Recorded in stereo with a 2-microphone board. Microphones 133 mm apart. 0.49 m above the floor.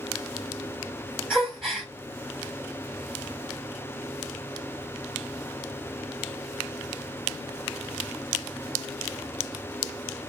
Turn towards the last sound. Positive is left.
turn(degrees=-5)  # may be behind; listen again after turning